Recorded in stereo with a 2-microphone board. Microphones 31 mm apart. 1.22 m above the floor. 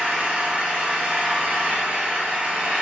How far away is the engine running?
About 1.2 m.